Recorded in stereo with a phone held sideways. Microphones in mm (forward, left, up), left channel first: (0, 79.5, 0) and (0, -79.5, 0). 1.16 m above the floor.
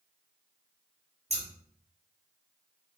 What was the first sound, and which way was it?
Scissors, 45° right (ahead or behind).